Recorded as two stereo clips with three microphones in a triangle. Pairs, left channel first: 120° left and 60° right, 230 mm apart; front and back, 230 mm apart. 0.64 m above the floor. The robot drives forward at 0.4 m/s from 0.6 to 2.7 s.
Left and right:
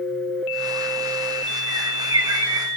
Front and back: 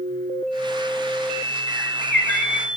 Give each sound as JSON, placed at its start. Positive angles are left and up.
{"t": 1.7, "sound": "a bird", "azimuth_deg": -130, "distance_m": 2.5}